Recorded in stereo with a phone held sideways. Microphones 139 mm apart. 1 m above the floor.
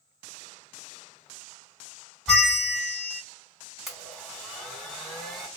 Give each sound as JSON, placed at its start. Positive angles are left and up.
{"t": 2.3, "sound": "a bell", "side_deg": 0, "distance_m": 1.5}
{"t": 3.9, "sound": "a blender", "side_deg": -5, "distance_m": 1.5}